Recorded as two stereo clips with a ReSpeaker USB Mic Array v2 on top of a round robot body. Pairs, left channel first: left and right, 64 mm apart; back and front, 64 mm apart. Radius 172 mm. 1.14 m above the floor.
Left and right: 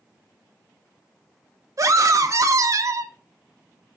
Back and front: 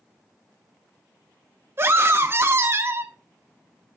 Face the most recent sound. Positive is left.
turn(degrees=-55)